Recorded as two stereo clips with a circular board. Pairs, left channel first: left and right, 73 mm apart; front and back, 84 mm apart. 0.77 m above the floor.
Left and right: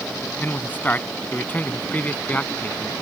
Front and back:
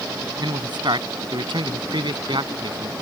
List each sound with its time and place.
0.4 s a man speaking: 155° left; by 2.9 s 160° left